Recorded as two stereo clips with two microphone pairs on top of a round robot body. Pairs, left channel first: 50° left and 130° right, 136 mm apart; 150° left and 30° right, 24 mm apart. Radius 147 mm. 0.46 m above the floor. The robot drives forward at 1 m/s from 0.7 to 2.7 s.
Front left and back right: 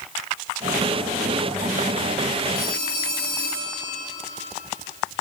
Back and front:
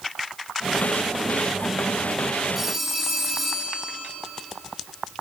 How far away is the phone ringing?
About 6 m.